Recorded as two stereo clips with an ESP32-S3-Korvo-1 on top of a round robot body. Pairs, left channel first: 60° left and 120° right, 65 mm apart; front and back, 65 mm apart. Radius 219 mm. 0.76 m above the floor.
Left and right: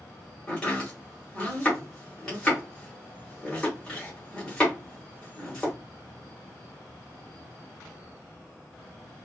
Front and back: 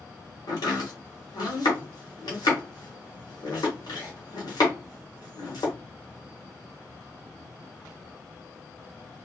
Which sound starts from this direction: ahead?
Chopping, at 0.5 s.